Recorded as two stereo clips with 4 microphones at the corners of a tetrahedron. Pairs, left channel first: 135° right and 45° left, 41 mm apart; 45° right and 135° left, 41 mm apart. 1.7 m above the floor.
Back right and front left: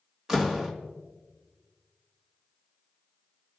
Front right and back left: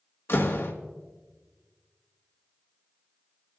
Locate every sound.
0.3 s a door slam: 30° right, 1.7 m